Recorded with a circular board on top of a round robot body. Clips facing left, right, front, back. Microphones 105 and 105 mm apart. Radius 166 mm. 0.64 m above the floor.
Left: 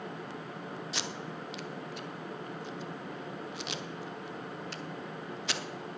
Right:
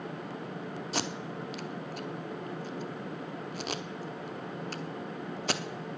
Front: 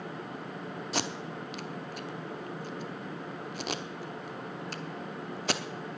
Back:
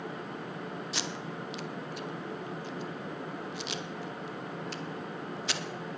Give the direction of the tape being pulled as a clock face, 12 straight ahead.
1 o'clock.